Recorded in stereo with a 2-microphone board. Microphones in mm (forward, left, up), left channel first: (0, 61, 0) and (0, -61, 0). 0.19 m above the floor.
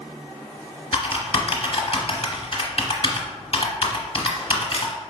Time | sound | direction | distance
0.9 | typing on a keyboard | 45° left (ahead or behind) | 1.0 m